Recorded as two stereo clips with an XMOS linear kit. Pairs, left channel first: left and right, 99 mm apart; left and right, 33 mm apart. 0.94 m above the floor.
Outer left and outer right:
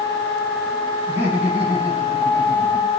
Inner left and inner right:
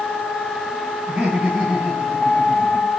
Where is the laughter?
15° right (ahead or behind), 4.5 m.